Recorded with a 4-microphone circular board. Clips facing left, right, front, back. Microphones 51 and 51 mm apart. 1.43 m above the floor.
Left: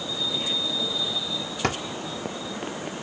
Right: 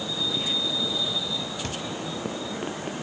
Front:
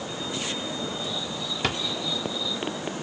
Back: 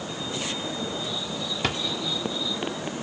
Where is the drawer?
90° left.